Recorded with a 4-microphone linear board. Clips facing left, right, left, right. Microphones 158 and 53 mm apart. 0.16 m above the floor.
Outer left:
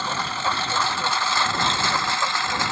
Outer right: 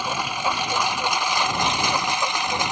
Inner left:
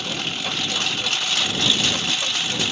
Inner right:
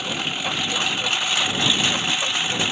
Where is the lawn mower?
10° right (ahead or behind); by 2.7 s 15° right (ahead or behind).